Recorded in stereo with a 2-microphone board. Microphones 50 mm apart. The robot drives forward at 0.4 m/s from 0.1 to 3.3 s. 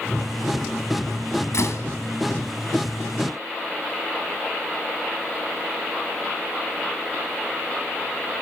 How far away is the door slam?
About 2.0 m.